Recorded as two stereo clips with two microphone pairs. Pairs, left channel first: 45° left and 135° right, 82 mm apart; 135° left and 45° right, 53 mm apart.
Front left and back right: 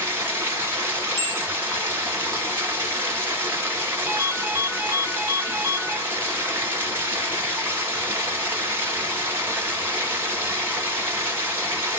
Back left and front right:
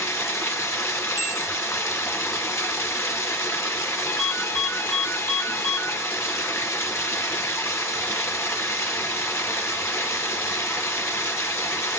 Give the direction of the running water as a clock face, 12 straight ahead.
6 o'clock.